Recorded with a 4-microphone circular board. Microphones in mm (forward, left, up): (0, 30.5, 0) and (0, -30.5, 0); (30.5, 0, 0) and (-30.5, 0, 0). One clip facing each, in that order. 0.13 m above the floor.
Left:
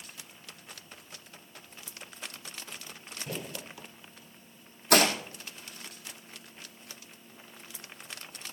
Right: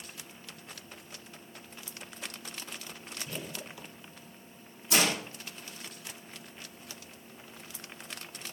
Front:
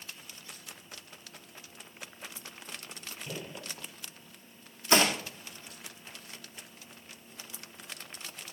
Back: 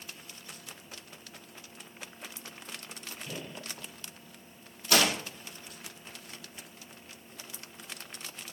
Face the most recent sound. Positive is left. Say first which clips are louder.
# left 5 dB, front 1 dB
turn(degrees=65)